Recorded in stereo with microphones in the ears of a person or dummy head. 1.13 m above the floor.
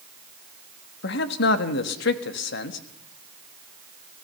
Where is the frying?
I don't hear frying.